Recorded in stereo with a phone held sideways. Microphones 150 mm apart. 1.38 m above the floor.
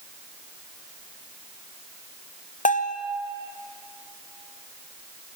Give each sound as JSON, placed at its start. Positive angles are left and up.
{"t": 2.6, "sound": "a bell", "side_deg": 60, "distance_m": 0.6}